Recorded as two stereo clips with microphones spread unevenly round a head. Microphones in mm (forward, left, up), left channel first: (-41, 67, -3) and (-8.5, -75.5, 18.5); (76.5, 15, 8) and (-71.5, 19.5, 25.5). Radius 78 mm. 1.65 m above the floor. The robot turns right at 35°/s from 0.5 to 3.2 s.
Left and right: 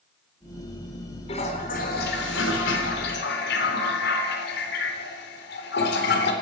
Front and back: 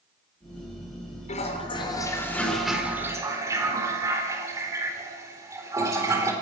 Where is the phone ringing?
I don't hear a phone ringing.